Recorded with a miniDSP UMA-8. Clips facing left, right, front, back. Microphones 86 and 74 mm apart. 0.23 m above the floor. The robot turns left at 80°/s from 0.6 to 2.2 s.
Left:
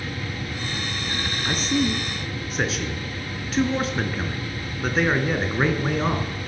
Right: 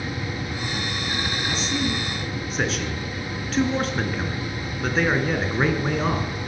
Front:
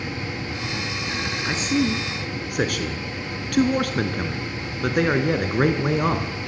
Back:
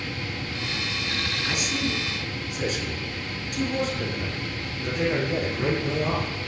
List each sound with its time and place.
1.4 s a man speaking: 60° left, 3.5 m; by 6.3 s straight ahead, 3.5 m